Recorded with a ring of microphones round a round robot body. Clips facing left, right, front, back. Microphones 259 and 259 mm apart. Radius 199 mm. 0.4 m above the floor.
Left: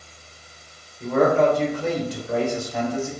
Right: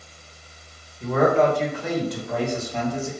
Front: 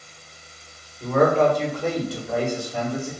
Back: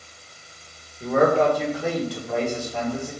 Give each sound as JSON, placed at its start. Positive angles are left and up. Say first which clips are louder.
{"t": 1.0, "sound": "a man speaking", "louder": "left 1 dB, even", "azimuth_deg": 110, "distance_m": 1.7}